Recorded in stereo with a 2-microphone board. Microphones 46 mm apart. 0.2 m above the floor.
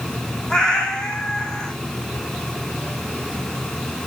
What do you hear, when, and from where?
0.5 s a cat meowing: 15° left (ahead or behind), 2.0 m